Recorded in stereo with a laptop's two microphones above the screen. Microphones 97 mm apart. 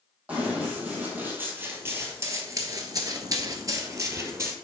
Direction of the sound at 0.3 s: 15° right (ahead or behind).